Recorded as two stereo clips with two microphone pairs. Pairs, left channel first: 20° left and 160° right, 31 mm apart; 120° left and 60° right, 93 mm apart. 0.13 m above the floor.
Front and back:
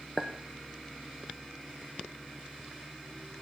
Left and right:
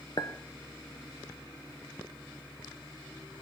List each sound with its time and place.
0.2 s a clink: 90° left, 1.0 m